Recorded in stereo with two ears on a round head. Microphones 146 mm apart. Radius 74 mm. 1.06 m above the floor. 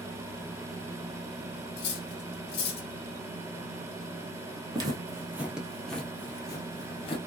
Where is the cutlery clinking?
70° left (ahead or behind), 1.2 m.